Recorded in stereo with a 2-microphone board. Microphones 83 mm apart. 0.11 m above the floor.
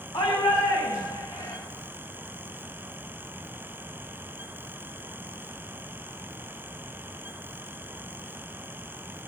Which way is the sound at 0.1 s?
65° left (ahead or behind).